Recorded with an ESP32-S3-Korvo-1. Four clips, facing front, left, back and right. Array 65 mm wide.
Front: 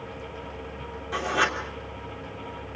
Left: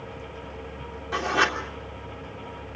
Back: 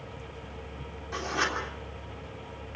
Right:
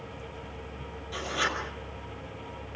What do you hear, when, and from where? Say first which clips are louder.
1.1 s writing: left 7 dB, front 5 dB; 75° left, 3 m